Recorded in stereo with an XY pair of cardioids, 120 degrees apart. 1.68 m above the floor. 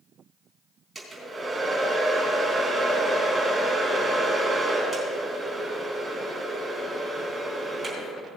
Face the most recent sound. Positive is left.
turn(degrees=-15)